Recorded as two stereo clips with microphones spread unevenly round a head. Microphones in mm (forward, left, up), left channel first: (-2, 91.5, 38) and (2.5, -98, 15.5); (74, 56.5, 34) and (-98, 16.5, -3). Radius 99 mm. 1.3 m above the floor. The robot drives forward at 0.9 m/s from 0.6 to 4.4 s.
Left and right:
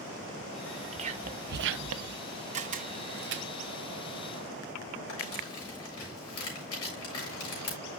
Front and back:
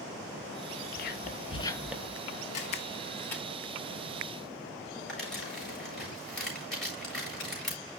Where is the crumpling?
100° left, 7.5 m.